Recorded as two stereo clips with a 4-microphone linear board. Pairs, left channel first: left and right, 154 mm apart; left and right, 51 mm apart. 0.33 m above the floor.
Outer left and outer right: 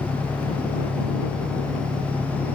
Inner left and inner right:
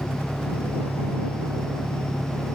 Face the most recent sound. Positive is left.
turn(degrees=-45)  # may be behind; listen again after turning